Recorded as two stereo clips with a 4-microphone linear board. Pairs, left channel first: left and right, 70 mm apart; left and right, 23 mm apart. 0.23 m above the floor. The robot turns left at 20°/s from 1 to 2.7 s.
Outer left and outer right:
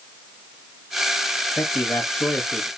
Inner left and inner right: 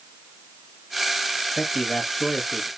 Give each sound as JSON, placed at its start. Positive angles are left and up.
{"t": 1.6, "sound": "a man speaking", "side_deg": 25, "distance_m": 1.4}